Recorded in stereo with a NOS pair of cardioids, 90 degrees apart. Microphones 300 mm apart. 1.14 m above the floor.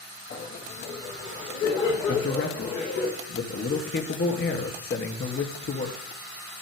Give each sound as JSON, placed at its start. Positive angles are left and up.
{"t": 0.3, "sound": "laughter", "azimuth_deg": 50, "distance_m": 1.7}
{"t": 2.1, "sound": "a man speaking", "azimuth_deg": 45, "distance_m": 2.5}